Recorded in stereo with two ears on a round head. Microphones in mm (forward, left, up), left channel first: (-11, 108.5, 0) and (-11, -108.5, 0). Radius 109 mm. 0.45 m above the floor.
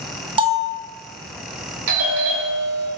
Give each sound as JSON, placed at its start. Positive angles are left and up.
{"t": 0.4, "sound": "a bell", "side_deg": -20, "distance_m": 0.9}
{"t": 1.9, "sound": "a doorbell", "side_deg": -55, "distance_m": 2.5}